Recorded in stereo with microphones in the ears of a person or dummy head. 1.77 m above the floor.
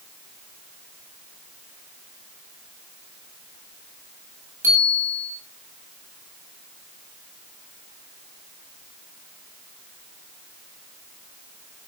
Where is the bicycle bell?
15° right (ahead or behind), 8.5 m.